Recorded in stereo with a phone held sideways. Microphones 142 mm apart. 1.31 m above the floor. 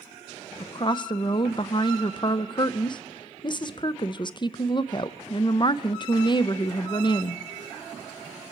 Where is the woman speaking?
35° left (ahead or behind), 0.6 m.